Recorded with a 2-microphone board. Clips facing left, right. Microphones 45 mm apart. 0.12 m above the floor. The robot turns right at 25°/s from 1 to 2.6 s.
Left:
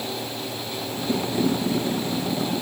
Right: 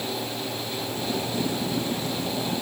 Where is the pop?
No pop in this recording.